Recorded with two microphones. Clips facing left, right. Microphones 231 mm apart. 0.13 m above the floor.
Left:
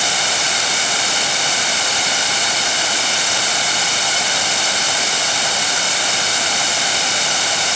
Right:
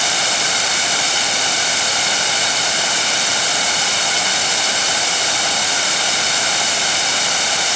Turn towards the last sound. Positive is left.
No sound to turn to.